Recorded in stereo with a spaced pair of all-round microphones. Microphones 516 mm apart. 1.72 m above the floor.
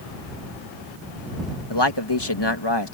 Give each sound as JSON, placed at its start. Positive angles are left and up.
{"t": 1.7, "sound": "a man speaking", "side_deg": 50}